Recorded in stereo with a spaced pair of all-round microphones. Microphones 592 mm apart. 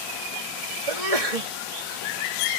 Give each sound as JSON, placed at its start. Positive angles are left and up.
{"t": 0.9, "sound": "a sneeze", "side_deg": -70}